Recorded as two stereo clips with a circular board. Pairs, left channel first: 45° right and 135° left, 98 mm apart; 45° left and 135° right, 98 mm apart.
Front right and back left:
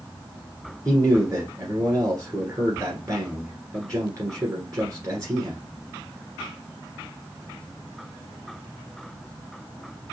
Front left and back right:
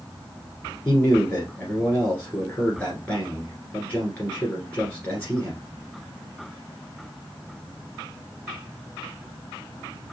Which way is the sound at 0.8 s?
110° left.